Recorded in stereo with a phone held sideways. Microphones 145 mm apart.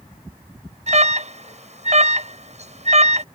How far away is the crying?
No crying in this recording.